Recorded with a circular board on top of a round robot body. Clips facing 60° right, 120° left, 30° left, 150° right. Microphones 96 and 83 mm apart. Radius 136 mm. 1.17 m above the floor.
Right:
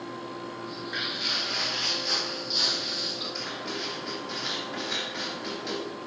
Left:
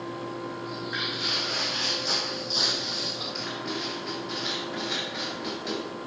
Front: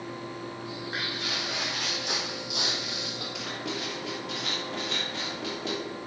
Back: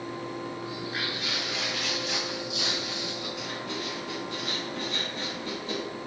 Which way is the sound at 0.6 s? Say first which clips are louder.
Left 2 dB, back 1 dB; 70° left.